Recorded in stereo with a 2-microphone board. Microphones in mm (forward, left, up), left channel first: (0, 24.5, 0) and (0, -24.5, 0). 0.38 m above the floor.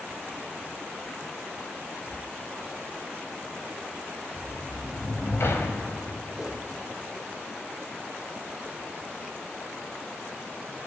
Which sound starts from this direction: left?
A sliding door, at 4.4 s.